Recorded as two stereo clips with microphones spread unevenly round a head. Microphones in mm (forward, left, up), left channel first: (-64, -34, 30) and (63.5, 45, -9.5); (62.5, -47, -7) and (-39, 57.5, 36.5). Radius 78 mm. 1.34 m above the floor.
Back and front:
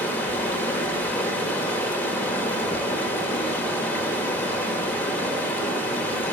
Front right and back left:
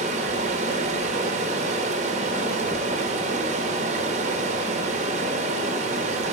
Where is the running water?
145° left, 1.0 m.